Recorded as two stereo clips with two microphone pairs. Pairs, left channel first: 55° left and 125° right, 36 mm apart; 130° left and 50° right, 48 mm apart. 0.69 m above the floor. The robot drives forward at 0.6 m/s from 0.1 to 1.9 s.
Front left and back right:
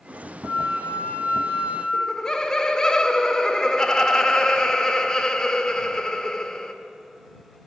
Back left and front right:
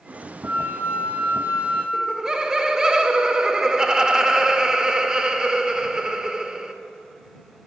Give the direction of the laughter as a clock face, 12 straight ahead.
12 o'clock.